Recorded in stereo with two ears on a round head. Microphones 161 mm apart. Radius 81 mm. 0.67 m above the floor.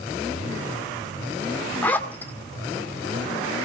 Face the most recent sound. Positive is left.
turn(degrees=10)  # may be behind; listen again after turning